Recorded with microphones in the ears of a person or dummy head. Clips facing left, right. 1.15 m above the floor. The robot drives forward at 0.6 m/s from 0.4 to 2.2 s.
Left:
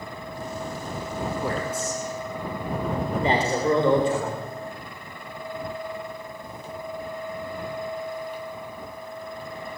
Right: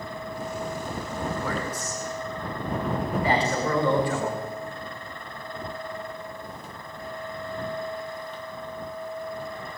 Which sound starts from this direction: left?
A man speaking, at 1.4 s.